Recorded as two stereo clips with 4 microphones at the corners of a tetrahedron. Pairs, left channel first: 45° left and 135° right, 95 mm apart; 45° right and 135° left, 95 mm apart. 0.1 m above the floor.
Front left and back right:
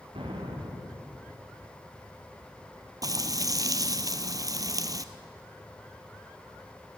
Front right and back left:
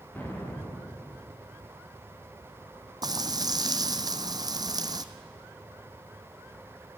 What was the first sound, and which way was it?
An explosion, 115° right.